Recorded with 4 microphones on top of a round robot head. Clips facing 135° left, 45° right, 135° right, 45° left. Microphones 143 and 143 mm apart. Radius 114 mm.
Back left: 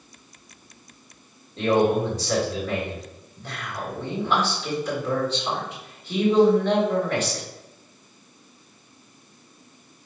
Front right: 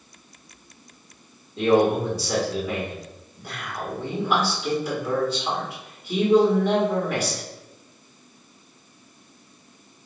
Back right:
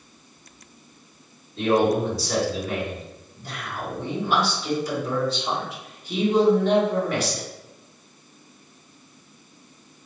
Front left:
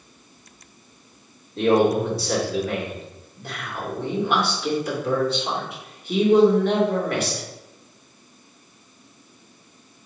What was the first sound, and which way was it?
A man speaking, 35° left.